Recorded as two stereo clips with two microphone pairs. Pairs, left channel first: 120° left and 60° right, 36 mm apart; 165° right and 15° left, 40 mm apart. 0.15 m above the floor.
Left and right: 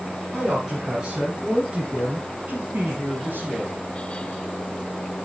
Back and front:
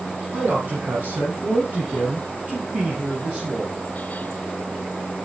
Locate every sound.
0.3 s a man speaking: 20° left, 2.5 m; by 3.8 s 50° right, 2 m